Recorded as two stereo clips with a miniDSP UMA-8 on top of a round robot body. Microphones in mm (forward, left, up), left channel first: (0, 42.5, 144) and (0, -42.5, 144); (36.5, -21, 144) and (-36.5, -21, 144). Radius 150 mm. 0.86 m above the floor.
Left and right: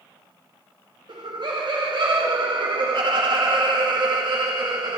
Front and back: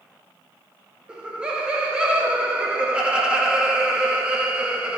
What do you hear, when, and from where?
1.1 s laughter: 105° right, 0.9 m